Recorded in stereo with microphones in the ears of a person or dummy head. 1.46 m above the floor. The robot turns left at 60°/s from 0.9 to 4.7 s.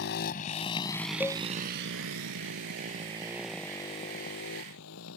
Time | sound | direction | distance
0.0 | a motorcycle | 65° left (ahead or behind) | ?
1.2 | a cowbell | 5° left (ahead or behind) | ?